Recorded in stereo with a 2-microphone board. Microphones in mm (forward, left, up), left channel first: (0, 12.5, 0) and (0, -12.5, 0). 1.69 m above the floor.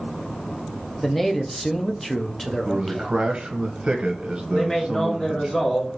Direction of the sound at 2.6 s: 45° right (ahead or behind).